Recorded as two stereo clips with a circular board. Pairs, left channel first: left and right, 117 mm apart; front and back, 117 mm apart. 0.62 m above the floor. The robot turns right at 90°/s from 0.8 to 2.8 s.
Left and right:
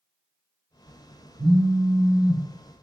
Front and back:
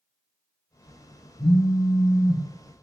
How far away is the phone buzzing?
About 2 m.